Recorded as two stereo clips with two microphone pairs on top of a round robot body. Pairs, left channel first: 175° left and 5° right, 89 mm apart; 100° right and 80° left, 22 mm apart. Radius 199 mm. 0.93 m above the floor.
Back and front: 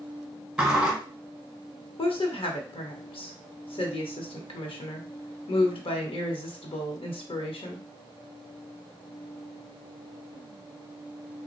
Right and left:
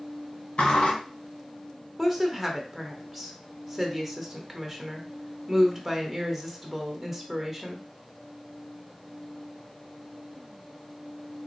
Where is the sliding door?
85° right, 1.4 m.